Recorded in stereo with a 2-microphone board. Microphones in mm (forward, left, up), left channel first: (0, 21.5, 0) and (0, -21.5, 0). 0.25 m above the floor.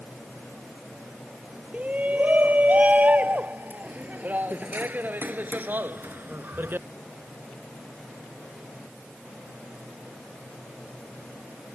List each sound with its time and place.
1.7 s a shout: 35° right (ahead or behind); by 6.9 s 55° right (ahead or behind)